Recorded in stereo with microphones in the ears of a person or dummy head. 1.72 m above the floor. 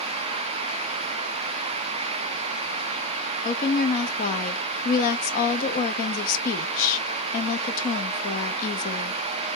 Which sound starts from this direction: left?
A woman speaking, at 3.5 s.